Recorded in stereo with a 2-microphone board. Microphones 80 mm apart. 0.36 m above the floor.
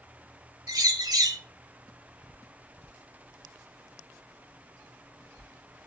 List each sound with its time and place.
0.7 s a bird: 60° right (ahead or behind), 1.6 m